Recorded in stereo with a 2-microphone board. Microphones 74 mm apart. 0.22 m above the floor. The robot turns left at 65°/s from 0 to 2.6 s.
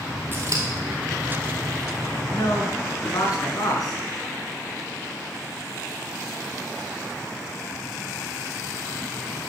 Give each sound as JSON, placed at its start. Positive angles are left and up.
{"t": 0.3, "sound": "scissors", "side_deg": -30, "distance_m": 2.5}
{"t": 2.3, "sound": "a man speaking", "side_deg": 55, "distance_m": 3.0}